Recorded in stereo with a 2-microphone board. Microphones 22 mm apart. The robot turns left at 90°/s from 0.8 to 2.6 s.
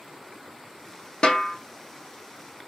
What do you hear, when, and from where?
1.2 s a snare drum: 50° left (ahead or behind), 0.5 m; by 1.6 s 80° left, 0.5 m